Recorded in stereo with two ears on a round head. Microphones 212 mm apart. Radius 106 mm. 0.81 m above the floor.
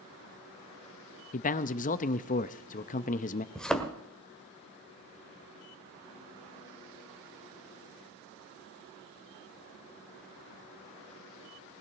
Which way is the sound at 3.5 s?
5° left (ahead or behind).